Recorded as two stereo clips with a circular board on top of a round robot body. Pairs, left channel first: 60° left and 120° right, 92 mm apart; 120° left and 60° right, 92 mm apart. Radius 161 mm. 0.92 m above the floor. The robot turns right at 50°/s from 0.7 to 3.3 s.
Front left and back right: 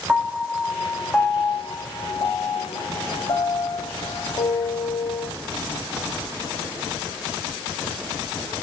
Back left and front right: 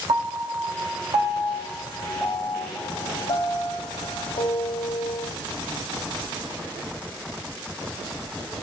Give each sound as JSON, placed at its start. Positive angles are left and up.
{"t": 0.1, "sound": "a piano", "azimuth_deg": -35, "distance_m": 0.8}